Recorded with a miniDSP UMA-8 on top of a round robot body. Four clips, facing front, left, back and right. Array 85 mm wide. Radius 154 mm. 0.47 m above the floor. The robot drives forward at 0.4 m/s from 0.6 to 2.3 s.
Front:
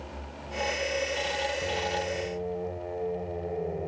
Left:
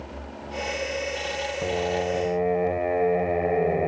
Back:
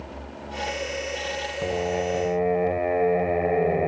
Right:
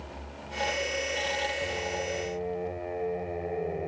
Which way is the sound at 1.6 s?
140° left.